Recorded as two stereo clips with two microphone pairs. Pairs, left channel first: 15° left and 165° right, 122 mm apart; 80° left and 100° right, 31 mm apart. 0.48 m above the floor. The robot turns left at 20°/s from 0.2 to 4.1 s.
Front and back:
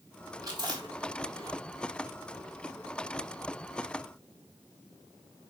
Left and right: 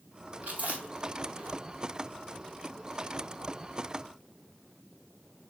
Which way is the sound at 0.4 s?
110° right.